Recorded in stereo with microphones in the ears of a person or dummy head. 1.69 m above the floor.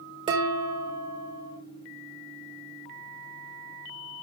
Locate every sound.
0.3 s dishes clattering: 30° right (ahead or behind), 3.5 m